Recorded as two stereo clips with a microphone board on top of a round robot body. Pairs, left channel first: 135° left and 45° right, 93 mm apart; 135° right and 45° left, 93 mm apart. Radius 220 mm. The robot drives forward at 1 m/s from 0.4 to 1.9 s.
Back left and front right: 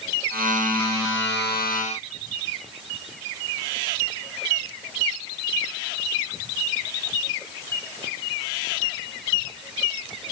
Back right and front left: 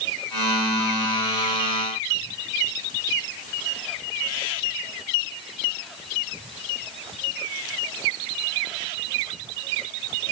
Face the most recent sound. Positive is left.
No sound to turn to.